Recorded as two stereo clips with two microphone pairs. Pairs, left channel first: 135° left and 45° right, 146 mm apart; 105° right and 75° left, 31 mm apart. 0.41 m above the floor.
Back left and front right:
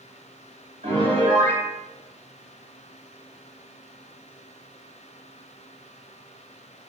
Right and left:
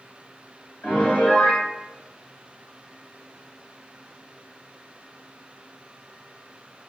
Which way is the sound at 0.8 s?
80° right.